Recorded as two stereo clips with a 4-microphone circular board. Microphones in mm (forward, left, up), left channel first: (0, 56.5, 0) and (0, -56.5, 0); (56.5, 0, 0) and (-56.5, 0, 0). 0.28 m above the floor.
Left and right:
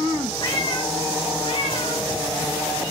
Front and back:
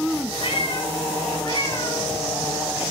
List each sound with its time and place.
0.4 s a cat meowing: 40° left, 2 m; by 2.9 s 65° left, 3.5 m